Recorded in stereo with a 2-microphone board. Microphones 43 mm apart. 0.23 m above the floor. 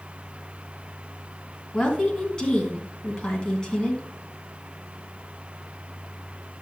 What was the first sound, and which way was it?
A woman speaking, 20° left (ahead or behind).